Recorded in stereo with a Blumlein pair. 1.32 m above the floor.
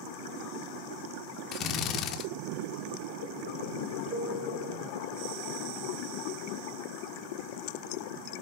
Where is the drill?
30° left, 1.3 m.